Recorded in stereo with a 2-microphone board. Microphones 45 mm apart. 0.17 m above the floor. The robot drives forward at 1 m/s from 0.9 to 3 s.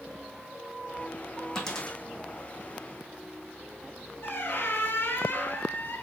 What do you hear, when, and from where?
1.6 s a dropped coin: 10° left (ahead or behind), 2.5 m
4.2 s a squeak: 55° left (ahead or behind), 0.9 m